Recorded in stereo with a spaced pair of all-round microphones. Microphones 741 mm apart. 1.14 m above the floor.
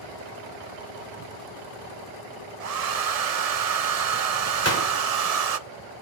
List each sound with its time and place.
2.6 s a hair dryer: 60° right (ahead or behind), 0.8 m
4.6 s a gunshot: 20° left (ahead or behind), 4 m